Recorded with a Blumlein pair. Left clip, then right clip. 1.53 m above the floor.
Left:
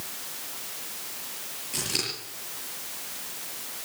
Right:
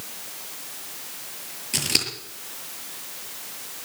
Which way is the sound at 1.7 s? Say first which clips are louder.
Right 6 dB; 65° right.